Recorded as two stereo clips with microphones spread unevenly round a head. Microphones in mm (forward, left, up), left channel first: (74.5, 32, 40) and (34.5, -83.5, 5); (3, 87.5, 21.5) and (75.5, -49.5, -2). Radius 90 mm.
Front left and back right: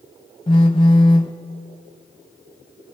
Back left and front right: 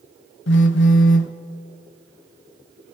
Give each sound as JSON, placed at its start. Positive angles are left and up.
{"t": 0.5, "sound": "a phone buzzing", "azimuth_deg": 135, "distance_m": 0.5}